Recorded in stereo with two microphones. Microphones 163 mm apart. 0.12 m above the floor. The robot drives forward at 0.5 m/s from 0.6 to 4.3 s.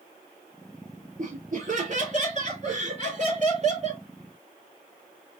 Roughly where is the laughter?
Right.